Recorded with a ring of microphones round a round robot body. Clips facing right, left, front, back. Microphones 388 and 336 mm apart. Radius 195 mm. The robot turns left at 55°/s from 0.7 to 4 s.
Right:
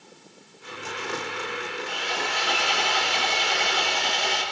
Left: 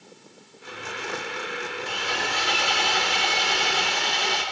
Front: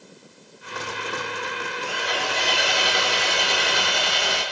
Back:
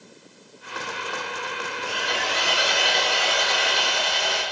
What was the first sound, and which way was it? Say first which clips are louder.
Sawing: left 1 dB, front 1 dB; 140° left.